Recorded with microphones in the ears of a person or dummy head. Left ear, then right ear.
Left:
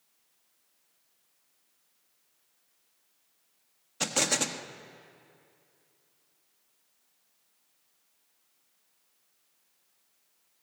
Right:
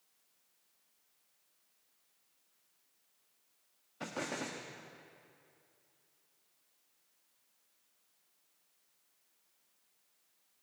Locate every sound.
4.0 s an explosion: 80° left, 1.4 m